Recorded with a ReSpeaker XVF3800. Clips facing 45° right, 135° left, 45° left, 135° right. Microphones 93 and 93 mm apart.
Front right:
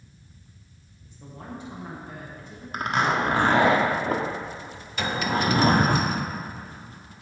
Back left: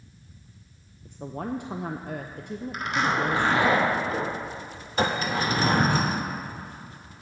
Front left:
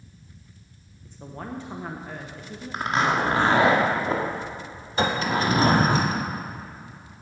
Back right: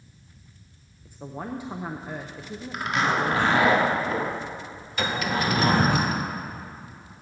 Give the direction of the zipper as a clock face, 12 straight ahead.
12 o'clock.